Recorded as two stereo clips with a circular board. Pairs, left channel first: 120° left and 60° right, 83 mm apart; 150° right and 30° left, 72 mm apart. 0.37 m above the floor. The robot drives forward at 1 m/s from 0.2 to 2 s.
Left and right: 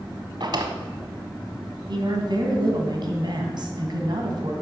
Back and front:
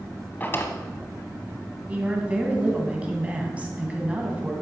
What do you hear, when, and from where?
0.4 s a drawer: 85° right, 1.1 m; by 0.7 s 100° right, 1.2 m
1.9 s a woman speaking: 40° right, 2.5 m